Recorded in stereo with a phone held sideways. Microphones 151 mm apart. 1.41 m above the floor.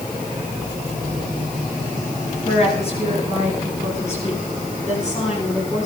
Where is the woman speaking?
40° left (ahead or behind), 10 m; by 5.9 s 50° left (ahead or behind), 12.5 m.